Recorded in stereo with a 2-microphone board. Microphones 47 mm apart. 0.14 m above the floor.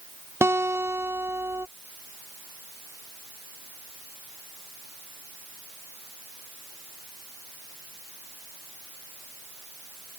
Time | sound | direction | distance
0.4 | a guitar | 65° right (ahead or behind) | ?